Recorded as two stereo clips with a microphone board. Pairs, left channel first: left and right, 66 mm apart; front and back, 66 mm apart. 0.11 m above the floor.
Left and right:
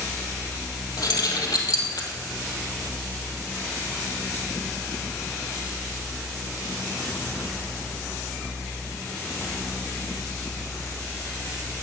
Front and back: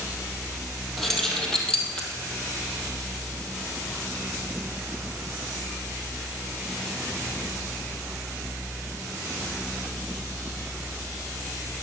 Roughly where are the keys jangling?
Left.